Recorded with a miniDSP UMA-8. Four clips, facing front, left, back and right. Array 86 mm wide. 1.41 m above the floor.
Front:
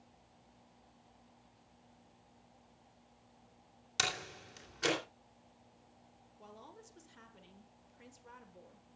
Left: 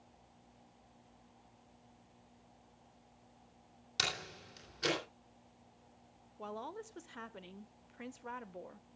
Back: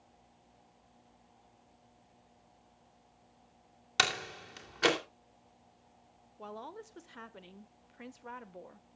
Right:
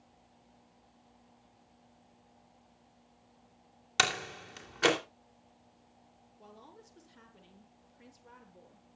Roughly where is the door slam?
Behind right.